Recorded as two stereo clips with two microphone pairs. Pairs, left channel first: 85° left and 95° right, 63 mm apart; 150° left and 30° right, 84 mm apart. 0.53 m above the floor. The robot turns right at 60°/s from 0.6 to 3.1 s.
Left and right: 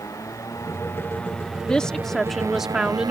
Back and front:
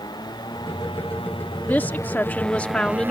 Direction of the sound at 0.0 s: 120° left.